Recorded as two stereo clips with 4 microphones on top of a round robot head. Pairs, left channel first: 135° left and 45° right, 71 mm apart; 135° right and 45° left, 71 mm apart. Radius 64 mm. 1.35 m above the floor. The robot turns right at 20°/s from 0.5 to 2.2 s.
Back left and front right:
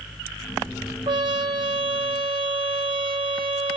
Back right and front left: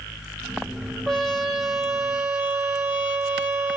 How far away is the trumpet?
About 1.2 m.